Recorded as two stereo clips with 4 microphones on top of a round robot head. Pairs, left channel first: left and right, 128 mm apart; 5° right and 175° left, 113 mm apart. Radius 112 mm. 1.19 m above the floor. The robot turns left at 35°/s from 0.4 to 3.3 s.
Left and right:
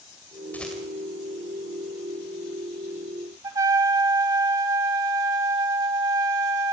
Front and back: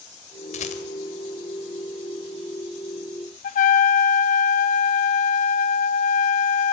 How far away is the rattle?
About 1.9 m.